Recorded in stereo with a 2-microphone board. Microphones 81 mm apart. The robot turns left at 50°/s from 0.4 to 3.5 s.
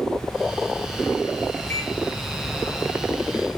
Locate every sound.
1.7 s a microwave: 25° left (ahead or behind), 2.5 m; by 1.9 s 35° left (ahead or behind), 2.5 m